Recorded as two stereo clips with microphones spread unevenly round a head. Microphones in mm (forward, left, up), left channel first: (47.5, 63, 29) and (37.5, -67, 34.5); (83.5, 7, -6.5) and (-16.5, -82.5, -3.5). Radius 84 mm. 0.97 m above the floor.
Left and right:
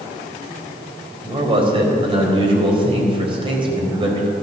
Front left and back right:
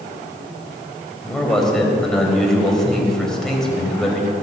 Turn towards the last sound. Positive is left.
turn(degrees=-45)